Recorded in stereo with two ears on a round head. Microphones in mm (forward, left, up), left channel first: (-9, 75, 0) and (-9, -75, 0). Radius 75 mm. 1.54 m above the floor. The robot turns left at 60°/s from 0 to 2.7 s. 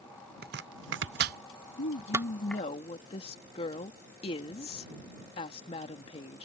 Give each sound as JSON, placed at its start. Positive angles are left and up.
{"t": 0.4, "sound": "chopping", "side_deg": -60}
{"t": 1.8, "sound": "a woman speaking", "azimuth_deg": 90}